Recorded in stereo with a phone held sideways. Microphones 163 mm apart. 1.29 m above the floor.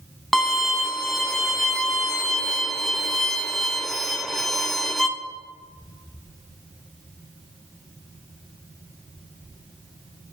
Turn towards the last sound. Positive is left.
turn(degrees=0)  # may be behind; listen again after turning